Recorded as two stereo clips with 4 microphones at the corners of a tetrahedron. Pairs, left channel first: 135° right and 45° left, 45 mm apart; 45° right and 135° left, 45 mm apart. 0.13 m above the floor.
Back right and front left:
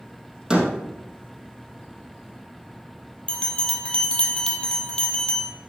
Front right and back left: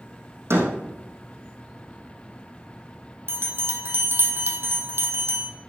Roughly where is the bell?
Behind left.